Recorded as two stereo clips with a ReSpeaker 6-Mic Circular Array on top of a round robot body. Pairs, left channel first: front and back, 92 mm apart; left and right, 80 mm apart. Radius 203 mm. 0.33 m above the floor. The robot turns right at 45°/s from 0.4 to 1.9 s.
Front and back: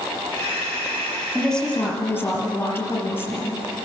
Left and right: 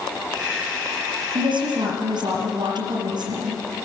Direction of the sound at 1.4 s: 90° right.